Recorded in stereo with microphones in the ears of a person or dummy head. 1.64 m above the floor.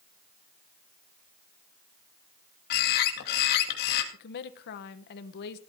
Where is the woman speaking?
60° left (ahead or behind), 1.1 m.